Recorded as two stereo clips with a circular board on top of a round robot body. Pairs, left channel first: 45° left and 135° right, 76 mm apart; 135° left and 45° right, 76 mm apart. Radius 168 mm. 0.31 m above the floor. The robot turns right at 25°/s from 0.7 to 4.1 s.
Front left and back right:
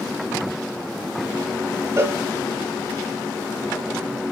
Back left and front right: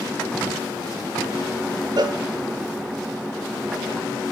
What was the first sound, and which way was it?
A cowbell, 80° right.